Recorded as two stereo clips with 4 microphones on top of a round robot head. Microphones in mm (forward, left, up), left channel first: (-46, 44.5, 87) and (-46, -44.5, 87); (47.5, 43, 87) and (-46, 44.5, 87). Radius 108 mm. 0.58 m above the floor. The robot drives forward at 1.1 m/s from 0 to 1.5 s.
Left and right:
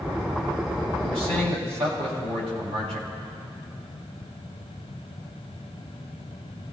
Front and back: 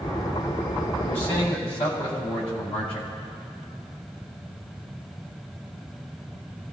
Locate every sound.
1.0 s a man speaking: 70° right, 4 m; by 3.1 s 75° right, 4 m